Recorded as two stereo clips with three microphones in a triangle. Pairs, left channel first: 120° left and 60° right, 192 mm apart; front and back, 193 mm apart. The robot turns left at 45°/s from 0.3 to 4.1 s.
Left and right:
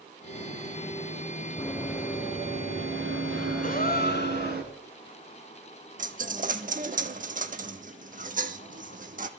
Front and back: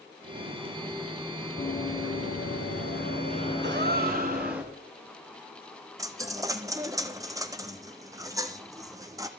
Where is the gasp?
165° left, 0.9 m; by 4.7 s 145° left, 0.9 m.